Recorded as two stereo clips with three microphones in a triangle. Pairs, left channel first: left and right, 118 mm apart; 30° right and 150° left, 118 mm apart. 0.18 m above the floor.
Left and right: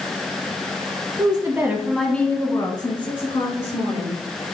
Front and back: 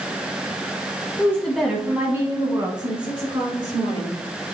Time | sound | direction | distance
1.2 | a woman speaking | 95° right | 1.2 m